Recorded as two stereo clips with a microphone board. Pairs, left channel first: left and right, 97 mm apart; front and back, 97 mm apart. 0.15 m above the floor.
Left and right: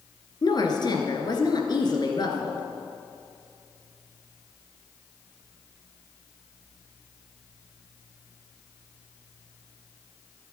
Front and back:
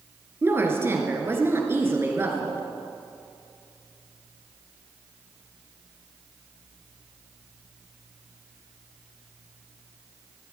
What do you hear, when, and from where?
0.4 s a woman speaking: 120° left, 2 m